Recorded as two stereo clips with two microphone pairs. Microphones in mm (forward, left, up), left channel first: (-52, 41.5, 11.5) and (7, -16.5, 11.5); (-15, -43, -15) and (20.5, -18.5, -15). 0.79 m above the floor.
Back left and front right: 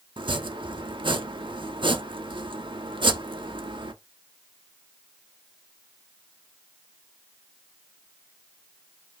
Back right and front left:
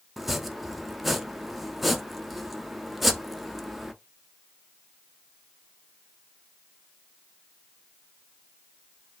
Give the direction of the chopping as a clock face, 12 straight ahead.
2 o'clock.